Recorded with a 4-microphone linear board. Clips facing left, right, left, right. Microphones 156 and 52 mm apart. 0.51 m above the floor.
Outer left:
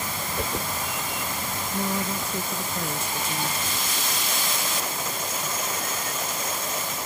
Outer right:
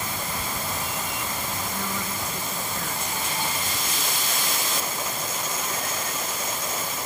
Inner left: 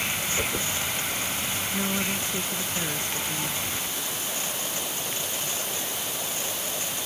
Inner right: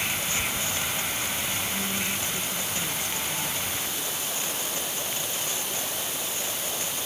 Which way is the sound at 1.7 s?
30° left (ahead or behind).